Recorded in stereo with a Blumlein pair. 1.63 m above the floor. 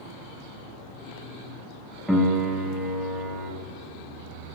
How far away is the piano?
About 1.1 m.